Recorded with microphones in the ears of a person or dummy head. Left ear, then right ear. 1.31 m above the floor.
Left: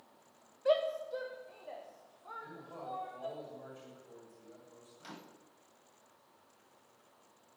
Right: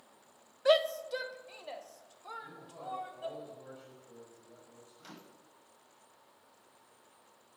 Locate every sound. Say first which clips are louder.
0.7 s a shout: right 4 dB; 40° right (ahead or behind), 0.7 m; by 3.4 s 80° right, 3 m
2.4 s a man speaking: even; 25° left (ahead or behind), 6.5 m
5.0 s a microwave: left 3 dB; 5° left (ahead or behind), 0.8 m